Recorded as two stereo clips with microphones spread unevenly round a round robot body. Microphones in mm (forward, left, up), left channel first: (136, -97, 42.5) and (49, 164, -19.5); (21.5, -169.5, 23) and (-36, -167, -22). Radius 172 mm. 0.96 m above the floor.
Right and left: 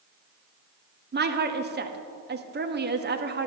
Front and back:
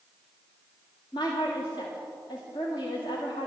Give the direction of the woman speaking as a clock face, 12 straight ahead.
10 o'clock.